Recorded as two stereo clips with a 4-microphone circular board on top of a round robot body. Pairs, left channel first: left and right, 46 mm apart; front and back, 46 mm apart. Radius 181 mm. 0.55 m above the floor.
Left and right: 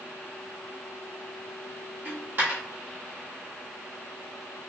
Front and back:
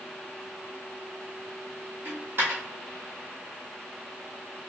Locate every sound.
2.0 s a dropped coin: 140° right, 2 m